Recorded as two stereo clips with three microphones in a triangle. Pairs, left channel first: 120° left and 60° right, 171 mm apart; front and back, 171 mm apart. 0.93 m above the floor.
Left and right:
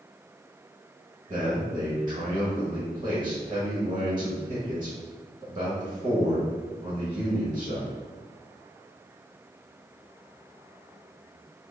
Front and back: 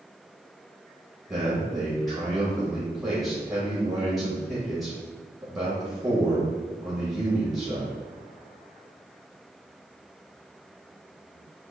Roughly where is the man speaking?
Right.